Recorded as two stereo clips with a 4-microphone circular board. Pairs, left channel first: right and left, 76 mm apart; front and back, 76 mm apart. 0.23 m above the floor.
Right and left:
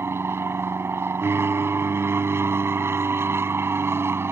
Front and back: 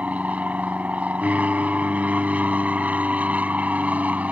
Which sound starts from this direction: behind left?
An aircraft, at 0.0 s.